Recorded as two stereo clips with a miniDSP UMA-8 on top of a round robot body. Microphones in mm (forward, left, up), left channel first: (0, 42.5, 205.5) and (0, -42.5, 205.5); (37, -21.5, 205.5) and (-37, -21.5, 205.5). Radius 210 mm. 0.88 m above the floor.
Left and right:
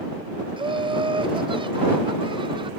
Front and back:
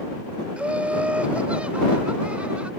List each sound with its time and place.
0.6 s laughter: 105° right